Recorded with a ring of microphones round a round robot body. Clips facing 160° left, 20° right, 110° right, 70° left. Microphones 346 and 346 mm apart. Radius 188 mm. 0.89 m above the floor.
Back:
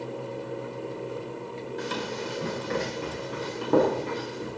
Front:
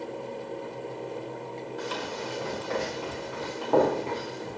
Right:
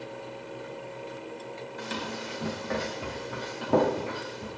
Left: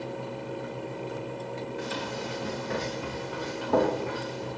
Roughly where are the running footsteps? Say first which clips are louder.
Back 3 dB, left 2 dB; behind right.